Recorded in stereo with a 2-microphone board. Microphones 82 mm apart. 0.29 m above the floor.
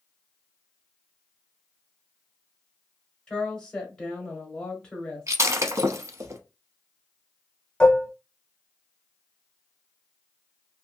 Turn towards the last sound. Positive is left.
turn(degrees=10)  # may be behind; listen again after turning